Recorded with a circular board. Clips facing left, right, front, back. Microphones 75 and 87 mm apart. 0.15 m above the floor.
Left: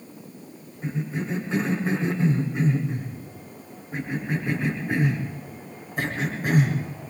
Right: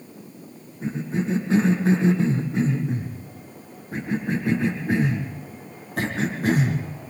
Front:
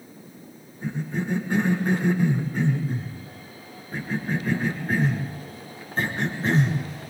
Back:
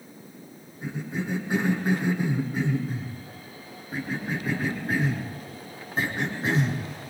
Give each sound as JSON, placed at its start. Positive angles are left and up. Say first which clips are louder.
{"t": 0.8, "sound": "a cough", "louder": "right 3 dB, front 3 dB", "azimuth_deg": -100, "distance_m": 7.5}